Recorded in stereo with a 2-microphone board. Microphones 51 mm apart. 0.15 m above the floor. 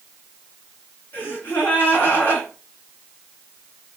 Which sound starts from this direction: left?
A gasp, at 1.1 s.